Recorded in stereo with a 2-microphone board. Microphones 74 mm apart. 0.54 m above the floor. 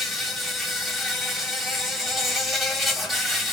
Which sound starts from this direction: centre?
An insect, at 0.0 s.